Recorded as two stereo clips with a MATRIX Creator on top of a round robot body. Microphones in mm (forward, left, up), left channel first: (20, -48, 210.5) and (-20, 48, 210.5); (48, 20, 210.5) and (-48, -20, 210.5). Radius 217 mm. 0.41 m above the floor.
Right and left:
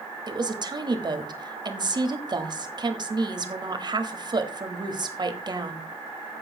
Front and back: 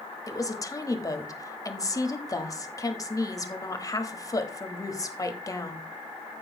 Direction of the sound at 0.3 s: 75° left.